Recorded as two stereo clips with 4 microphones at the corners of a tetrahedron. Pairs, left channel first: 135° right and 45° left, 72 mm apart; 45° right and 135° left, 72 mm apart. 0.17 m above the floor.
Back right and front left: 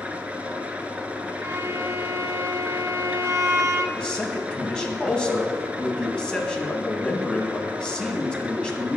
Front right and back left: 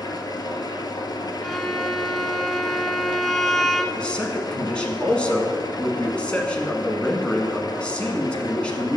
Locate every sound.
0.0 s an engine running: 30° right, 0.8 m
1.4 s a violin: 40° left, 0.7 m
4.0 s a man speaking: 85° right, 1.2 m